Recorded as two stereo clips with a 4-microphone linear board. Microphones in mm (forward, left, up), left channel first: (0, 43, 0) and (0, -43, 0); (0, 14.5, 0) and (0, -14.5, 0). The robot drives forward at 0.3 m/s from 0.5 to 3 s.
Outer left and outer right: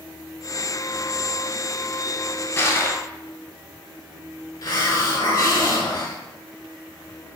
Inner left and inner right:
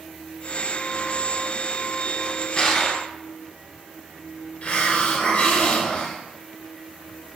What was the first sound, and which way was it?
Crushing, 35° left (ahead or behind).